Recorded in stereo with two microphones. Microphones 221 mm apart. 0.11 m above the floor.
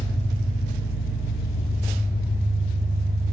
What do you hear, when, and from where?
0.0 s an engine running: 65° right (ahead or behind), 2.5 m